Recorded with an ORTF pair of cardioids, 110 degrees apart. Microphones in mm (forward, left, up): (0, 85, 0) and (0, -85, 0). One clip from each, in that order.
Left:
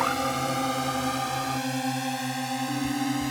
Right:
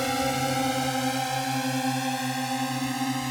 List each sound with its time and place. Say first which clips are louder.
0.0 s a drone: even; 20° right; by 3.3 s 10° right